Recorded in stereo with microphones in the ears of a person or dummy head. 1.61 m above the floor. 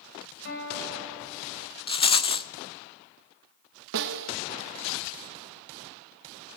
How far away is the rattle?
About 0.6 m.